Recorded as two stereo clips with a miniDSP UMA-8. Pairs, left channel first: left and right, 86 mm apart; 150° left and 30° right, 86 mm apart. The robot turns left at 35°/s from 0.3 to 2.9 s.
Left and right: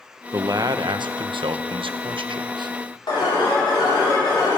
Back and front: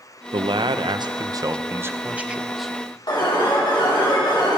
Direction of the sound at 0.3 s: 40° right.